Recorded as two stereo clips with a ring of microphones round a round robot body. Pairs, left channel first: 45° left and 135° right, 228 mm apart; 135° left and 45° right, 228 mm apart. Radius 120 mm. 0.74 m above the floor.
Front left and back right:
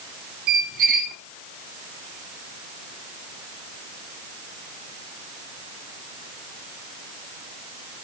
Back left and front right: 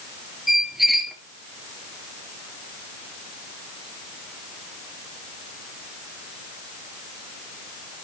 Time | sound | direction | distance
0.5 | a squeak | 135° right | 1.7 m